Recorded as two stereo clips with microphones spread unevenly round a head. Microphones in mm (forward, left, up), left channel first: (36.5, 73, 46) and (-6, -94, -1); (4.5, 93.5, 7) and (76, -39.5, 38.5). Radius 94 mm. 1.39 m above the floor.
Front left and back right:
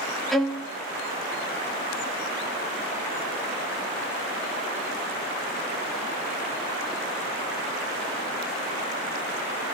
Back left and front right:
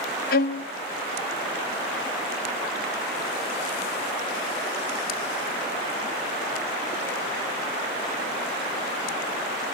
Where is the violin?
150° left, 0.7 m.